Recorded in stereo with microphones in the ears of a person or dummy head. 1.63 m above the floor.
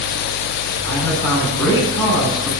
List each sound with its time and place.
0.8 s a man speaking: 15° left (ahead or behind), 7.5 m